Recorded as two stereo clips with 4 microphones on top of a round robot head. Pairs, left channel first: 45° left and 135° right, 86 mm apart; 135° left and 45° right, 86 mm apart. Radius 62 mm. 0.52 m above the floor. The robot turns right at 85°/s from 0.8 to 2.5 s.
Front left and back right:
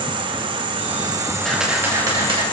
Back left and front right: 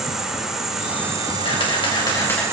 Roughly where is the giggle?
No giggle in this recording.